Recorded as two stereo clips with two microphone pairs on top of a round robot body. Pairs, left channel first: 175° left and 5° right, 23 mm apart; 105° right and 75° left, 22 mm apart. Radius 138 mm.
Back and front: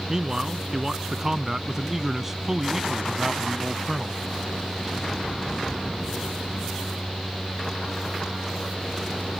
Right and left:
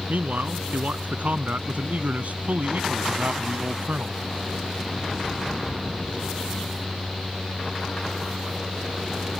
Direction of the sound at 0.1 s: 65° left.